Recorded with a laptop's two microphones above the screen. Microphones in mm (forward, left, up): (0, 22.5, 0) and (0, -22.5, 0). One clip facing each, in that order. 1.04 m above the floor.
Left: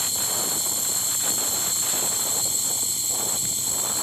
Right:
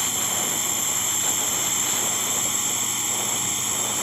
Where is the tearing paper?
I don't hear tearing paper.